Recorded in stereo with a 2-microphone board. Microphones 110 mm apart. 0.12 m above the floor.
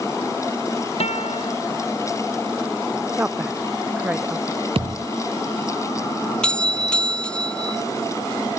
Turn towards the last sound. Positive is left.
turn(degrees=10)  # may be behind; listen again after turning